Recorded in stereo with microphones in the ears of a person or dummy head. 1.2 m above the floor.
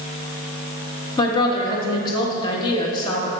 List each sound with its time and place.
1.2 s a woman speaking: 25° left (ahead or behind), 1.4 m